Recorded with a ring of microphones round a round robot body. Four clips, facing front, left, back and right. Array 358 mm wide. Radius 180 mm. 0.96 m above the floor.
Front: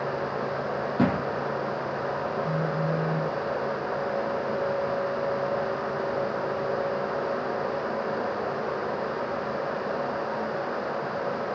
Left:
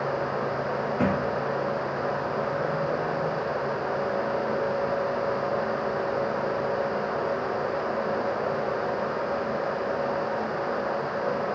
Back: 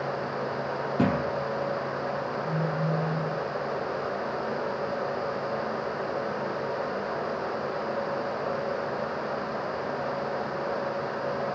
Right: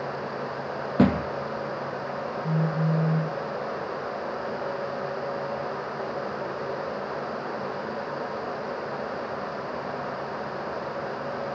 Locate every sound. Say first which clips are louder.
1.0 s a thud: right 6 dB, front 1 dB; 85° right, 1.8 m
2.4 s a phone buzzing: even, front 1 dB; 75° right, 1.3 m